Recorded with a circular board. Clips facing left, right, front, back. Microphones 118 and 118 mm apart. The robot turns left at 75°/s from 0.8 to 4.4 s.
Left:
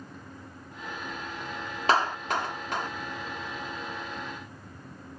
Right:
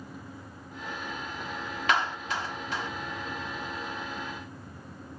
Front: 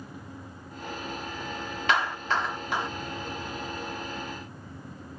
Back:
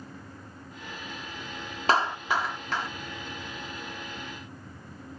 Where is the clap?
135° left, 1.4 m; by 2.9 s 60° left, 1.4 m.